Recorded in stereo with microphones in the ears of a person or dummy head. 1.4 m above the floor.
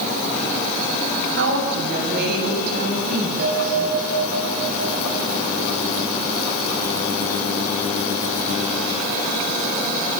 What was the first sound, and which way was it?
A woman speaking, 65° right (ahead or behind).